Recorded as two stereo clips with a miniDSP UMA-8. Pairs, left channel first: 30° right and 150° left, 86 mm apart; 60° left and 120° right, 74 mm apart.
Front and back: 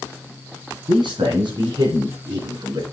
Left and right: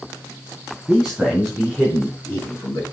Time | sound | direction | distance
0.9 | a man speaking | 155° left | 3 m